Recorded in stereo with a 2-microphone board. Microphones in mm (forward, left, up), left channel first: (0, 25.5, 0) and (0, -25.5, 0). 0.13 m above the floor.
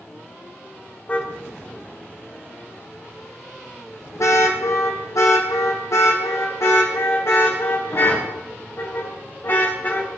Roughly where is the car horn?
Left.